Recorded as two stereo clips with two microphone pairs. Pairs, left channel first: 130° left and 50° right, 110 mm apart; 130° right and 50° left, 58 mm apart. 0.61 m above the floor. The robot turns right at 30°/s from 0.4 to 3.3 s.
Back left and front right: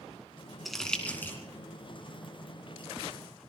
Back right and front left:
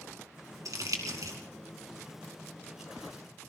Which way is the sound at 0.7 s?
45° left.